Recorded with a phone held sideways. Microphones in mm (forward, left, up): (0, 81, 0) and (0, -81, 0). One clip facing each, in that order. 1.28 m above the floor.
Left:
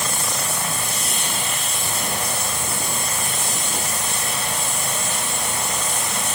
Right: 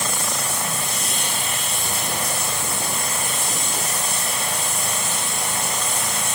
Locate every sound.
Only background noise.